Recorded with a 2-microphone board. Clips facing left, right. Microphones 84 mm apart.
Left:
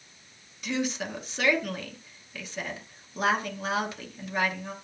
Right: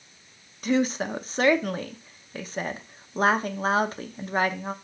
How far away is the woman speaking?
About 0.8 m.